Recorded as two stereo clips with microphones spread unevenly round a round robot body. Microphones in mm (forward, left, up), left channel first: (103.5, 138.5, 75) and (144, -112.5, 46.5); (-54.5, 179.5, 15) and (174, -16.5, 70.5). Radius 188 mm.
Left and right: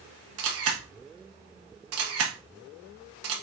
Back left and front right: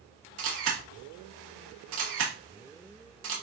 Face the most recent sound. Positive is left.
turn(degrees=-95)